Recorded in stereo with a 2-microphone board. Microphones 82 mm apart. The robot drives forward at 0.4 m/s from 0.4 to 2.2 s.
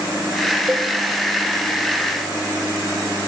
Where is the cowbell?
20° right (ahead or behind), 4 m.